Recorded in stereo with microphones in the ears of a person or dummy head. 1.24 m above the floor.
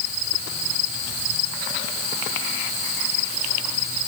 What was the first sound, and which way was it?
Only background noise.